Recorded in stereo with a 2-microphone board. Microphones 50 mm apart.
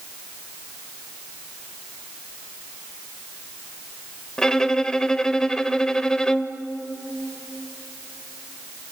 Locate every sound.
4.4 s a violin: 15° left (ahead or behind), 0.8 m